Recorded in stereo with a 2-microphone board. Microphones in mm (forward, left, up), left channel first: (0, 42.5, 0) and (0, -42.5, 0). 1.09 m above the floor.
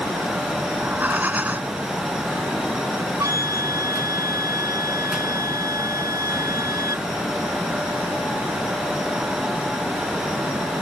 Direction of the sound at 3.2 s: 40° right (ahead or behind).